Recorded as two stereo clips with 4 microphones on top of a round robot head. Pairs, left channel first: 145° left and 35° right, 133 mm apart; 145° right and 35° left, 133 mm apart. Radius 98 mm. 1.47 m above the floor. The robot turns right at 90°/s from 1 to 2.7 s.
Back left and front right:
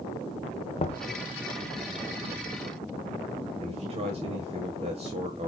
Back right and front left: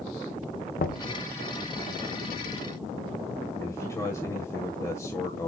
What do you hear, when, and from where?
0.8 s knocking: 165° right, 0.8 m
3.6 s a man speaking: 80° right, 1.6 m